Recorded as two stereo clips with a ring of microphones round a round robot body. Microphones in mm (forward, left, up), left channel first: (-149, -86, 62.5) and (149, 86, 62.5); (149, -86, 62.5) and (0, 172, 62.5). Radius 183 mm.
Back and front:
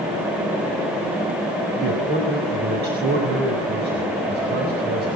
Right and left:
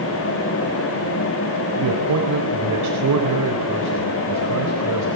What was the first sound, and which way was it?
A man speaking, 90° left.